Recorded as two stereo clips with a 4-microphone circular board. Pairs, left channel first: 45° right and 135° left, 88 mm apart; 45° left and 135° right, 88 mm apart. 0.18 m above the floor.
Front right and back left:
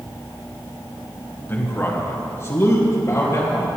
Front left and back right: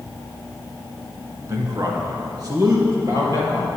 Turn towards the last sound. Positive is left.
turn(degrees=-95)